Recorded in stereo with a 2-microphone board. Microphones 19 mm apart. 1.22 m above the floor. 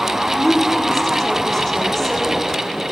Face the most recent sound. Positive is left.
turn(degrees=15)  # may be behind; listen again after turning